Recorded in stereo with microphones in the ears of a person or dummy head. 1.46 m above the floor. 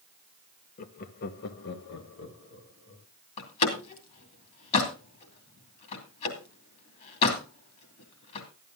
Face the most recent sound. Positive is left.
turn(degrees=35)  # may be behind; listen again after turning